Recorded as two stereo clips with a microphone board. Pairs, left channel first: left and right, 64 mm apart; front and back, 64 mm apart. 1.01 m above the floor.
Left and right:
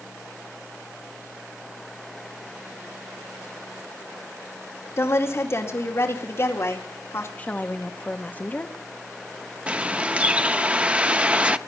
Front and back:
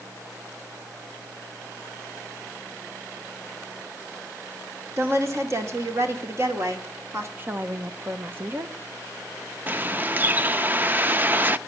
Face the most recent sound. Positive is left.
turn(degrees=-145)